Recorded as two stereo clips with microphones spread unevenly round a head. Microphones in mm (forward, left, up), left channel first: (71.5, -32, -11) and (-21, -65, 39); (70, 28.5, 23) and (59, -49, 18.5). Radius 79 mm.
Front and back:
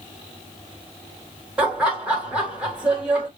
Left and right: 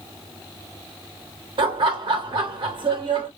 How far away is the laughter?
About 2 m.